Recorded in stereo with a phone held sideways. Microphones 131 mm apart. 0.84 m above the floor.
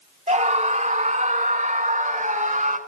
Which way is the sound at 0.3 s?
60° right (ahead or behind).